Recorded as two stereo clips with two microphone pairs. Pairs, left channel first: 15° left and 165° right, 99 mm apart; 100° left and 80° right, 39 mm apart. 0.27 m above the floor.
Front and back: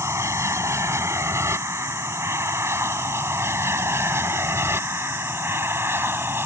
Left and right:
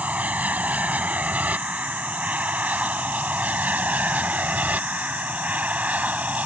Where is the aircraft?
115° right; by 6.5 s 110° right.